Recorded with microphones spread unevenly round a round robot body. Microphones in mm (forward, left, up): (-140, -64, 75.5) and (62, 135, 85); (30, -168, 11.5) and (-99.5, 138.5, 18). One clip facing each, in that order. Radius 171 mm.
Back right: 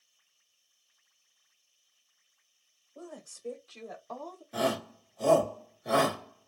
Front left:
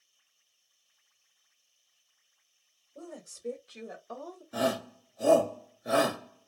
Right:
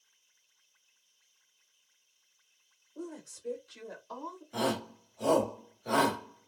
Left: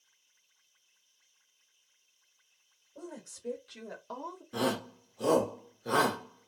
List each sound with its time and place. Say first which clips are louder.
3.0 s a woman speaking: front left 1 dB, right 3 dB; 105° left, 1.9 m; by 4.4 s 130° left, 1.2 m
4.5 s a shout: front left 1 dB, left 1 dB; 120° left, 1.1 m